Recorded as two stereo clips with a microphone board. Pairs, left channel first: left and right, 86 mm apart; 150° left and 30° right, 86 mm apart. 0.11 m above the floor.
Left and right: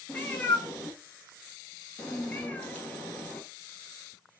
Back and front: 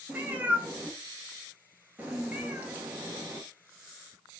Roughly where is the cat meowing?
Ahead left.